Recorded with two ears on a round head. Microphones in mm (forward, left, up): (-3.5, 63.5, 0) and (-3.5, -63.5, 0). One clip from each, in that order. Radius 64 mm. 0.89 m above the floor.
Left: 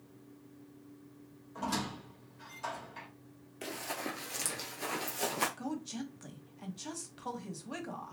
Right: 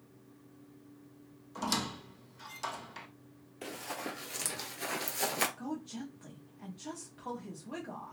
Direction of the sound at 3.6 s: 20° left (ahead or behind).